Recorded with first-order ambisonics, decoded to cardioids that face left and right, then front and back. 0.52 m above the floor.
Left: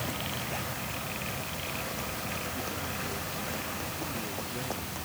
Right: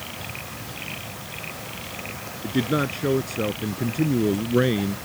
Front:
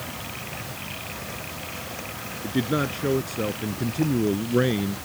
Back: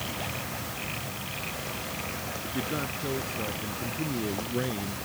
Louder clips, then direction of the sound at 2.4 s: Right 10 dB, front 8 dB; 60° right.